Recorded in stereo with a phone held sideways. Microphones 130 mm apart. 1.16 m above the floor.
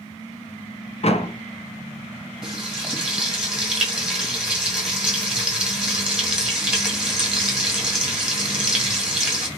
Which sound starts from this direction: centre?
Frying, at 2.4 s.